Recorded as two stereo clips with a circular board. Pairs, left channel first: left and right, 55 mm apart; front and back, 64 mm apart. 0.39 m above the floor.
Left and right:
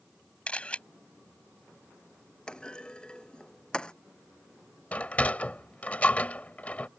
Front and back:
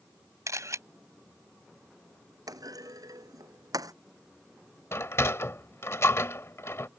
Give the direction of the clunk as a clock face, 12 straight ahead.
7 o'clock.